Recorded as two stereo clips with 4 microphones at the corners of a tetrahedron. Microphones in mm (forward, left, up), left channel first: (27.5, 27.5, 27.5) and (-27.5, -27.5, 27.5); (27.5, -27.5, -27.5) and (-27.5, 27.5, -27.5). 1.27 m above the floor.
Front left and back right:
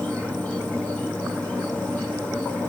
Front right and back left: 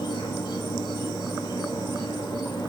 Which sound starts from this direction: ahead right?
An insect, at 0.0 s.